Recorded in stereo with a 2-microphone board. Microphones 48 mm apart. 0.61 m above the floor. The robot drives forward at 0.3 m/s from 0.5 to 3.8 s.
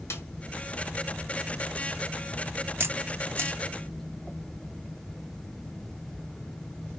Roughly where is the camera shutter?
Right.